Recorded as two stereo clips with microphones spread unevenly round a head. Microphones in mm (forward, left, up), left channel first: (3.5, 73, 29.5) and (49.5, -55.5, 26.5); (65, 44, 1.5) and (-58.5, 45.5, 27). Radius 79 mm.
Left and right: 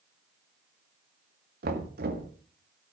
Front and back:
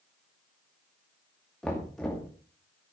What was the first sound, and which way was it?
Knocking, 85° right.